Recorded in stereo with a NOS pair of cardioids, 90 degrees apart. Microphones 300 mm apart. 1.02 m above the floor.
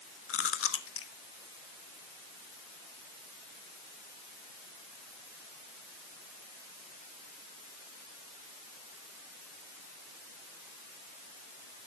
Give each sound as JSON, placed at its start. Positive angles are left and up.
{"t": 0.3, "sound": "chewing", "azimuth_deg": 45, "distance_m": 1.5}